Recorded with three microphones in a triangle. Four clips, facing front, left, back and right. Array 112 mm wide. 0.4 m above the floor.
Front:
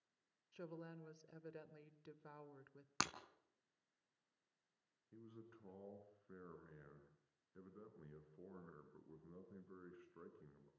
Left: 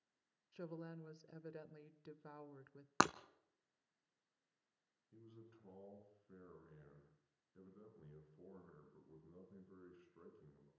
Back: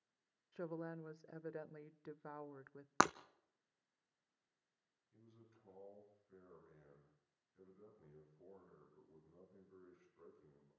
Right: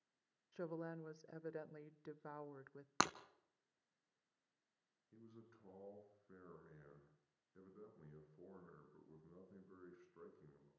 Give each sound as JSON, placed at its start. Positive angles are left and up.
{"t": 0.5, "sound": "a woman speaking", "azimuth_deg": -145, "distance_m": 0.9}
{"t": 3.0, "sound": "breaking glass", "azimuth_deg": 145, "distance_m": 0.5}
{"t": 5.1, "sound": "a man speaking", "azimuth_deg": -20, "distance_m": 5.5}